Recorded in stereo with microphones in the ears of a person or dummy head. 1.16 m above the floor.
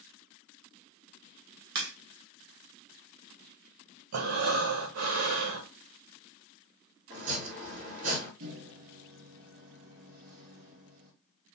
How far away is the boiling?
I don't hear boiling.